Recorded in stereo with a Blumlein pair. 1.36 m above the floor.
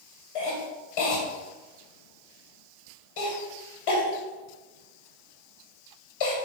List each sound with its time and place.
0.3 s a cough: 50° left, 1.1 m